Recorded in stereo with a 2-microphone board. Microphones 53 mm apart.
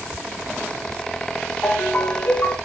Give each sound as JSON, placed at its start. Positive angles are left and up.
{"t": 1.6, "sound": "a ringtone", "side_deg": 35, "distance_m": 1.9}